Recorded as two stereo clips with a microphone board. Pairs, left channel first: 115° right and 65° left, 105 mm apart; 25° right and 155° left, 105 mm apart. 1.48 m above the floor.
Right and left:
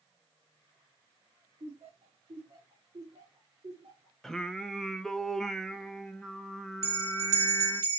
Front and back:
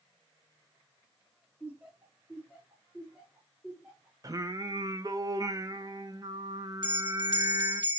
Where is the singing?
165° left, 0.6 m.